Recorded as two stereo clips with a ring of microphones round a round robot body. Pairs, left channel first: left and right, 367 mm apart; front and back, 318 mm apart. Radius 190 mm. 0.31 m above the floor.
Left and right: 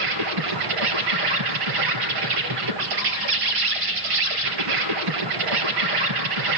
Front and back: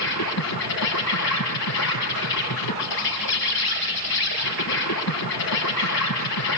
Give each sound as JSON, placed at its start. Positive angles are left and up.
{"t": 0.0, "sound": "an insect", "azimuth_deg": -60, "distance_m": 4.5}